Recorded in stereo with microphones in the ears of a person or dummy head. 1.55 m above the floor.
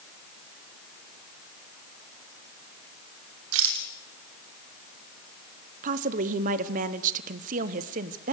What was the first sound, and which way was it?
A rattle, 70° right (ahead or behind).